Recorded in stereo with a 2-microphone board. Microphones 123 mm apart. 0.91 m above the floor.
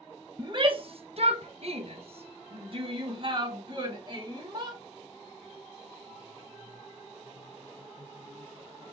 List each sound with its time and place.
0.4 s a shout: 35° right (ahead or behind), 0.6 m; by 4.8 s 40° right (ahead or behind), 2 m